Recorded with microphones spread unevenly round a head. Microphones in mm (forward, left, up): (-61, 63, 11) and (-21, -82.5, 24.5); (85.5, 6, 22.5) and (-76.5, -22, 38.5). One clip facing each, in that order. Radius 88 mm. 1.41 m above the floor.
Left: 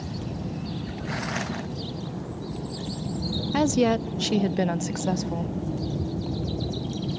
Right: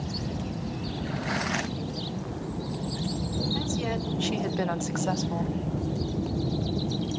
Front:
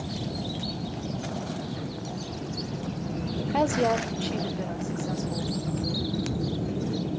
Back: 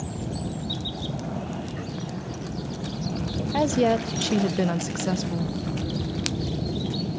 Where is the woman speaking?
105° left, 0.6 m; by 5.5 s 170° right, 1.2 m.